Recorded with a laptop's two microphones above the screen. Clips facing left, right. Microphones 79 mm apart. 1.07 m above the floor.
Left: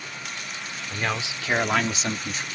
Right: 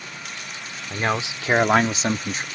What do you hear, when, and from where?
0.9 s a man speaking: 25° right (ahead or behind); by 2.5 s 40° right (ahead or behind)